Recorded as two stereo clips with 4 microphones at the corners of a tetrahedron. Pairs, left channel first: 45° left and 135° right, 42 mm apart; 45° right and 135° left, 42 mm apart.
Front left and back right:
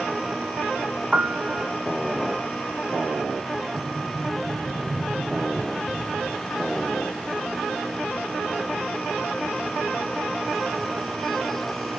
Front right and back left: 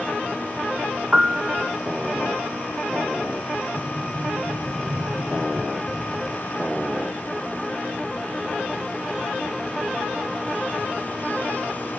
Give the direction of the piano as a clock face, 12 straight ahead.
6 o'clock.